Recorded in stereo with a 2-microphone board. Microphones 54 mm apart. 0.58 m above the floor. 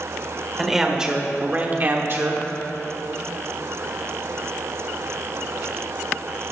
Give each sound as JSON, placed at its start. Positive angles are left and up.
{"t": 0.6, "sound": "a man speaking", "side_deg": -5, "distance_m": 1.7}